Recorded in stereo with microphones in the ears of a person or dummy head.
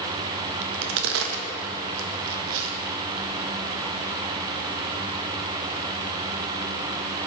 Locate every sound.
0.6 s a crack: 75° right (ahead or behind), 0.7 m